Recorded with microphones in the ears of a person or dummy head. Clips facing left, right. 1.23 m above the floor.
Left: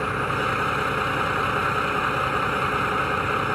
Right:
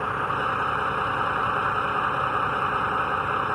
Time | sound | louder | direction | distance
0.0 | a vehicle | left 3 dB | 25° left (ahead or behind) | ?